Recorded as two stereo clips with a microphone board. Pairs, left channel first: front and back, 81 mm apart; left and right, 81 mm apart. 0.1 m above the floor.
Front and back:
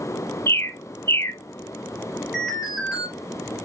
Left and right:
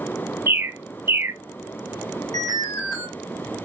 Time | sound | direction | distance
0.5 | a bird | 40° right | 0.8 m
2.3 | an alarm | 95° left | 3.5 m